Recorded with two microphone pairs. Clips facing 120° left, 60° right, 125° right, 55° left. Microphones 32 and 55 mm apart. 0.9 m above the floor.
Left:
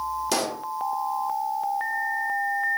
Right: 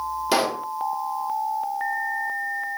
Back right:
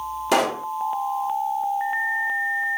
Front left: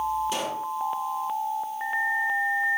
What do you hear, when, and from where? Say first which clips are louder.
0.3 s a pop: right 9 dB, back right 8 dB; 125° right, 1.2 m